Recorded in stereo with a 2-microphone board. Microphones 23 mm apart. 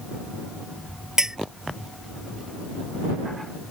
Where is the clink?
25° right (ahead or behind).